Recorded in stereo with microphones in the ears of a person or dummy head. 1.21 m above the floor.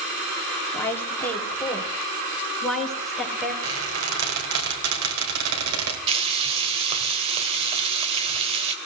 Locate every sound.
0.7 s a woman speaking: 10° left (ahead or behind), 2.5 m; by 3.5 s 5° right (ahead or behind), 5 m
3.6 s a squeak: 75° right (ahead or behind), 3 m
6.1 s frying: 35° right (ahead or behind), 2.5 m